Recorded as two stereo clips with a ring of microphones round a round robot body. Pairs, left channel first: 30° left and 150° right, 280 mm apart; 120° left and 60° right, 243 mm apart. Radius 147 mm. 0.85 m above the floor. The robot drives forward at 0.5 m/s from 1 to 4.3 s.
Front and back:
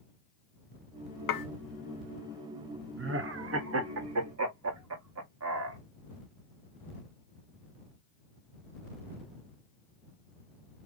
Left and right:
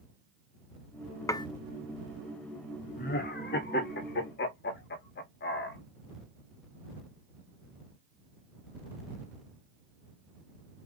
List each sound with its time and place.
1.3 s dishes clattering: 40° left, 0.6 m; by 1.5 s 45° left, 0.6 m
3.0 s laughter: 170° left, 1.0 m; by 5.8 s 175° left, 1.6 m